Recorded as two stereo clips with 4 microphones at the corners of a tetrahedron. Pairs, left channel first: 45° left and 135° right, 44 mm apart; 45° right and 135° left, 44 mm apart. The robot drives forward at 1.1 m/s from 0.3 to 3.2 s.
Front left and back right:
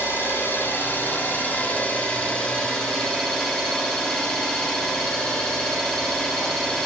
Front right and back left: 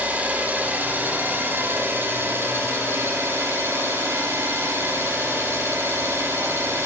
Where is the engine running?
80° left, 4 m; by 6.9 s 120° left, 4.5 m.